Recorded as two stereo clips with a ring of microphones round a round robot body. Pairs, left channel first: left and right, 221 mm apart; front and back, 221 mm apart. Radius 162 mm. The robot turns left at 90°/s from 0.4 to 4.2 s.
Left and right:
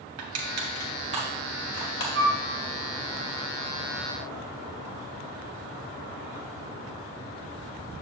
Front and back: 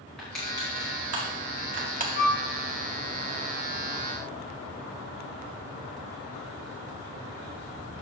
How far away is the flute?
About 2.5 m.